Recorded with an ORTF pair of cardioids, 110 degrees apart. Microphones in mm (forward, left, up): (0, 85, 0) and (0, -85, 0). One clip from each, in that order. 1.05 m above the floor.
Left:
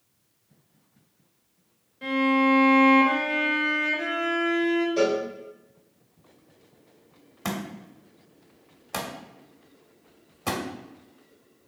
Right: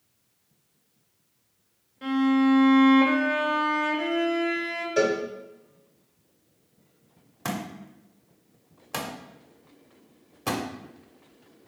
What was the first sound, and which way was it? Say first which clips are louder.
A violin: left 1 dB; 5° right.